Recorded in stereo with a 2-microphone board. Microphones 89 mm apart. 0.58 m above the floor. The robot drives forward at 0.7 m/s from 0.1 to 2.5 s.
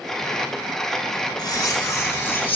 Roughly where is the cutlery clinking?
Left.